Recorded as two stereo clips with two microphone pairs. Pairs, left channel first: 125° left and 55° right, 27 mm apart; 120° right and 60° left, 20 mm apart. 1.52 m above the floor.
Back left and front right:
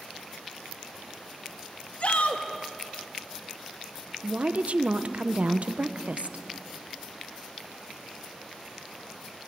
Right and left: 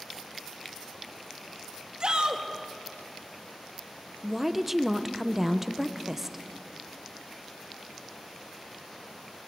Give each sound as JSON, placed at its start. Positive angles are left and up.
{"t": 2.0, "sound": "a shout", "azimuth_deg": 95, "distance_m": 2.5}
{"t": 4.2, "sound": "a woman speaking", "azimuth_deg": -20, "distance_m": 1.1}